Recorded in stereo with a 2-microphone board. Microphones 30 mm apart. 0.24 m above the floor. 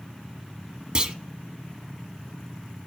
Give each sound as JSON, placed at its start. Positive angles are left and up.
{"t": 0.9, "sound": "a clunk", "side_deg": -25, "distance_m": 0.8}